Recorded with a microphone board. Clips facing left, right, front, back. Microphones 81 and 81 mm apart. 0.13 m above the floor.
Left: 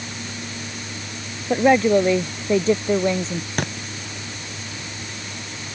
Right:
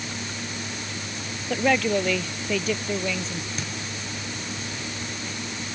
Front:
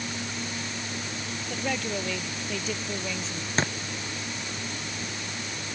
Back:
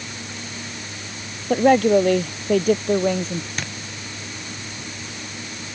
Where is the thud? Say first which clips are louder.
Left 8 dB, front 4 dB; 60° left.